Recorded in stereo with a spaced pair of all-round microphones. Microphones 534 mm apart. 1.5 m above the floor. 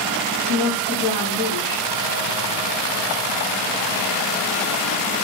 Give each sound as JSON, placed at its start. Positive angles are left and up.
{"t": 0.5, "sound": "a woman speaking", "side_deg": -20, "distance_m": 3.0}